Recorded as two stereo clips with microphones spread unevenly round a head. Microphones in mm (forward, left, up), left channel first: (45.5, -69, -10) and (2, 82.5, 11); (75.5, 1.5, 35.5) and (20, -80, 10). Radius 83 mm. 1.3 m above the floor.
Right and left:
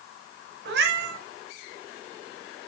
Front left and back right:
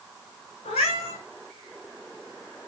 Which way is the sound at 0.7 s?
110° left.